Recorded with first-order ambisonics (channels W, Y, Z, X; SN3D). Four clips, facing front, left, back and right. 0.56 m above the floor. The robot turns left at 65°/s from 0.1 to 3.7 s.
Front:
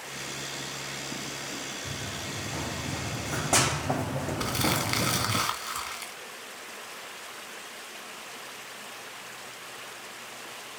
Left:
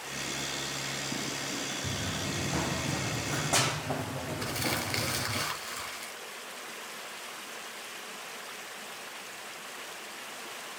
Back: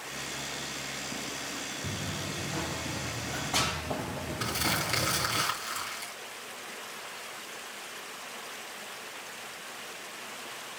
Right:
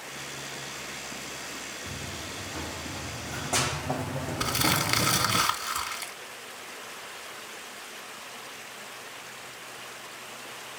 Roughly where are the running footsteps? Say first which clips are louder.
Left 3 dB, even; behind left.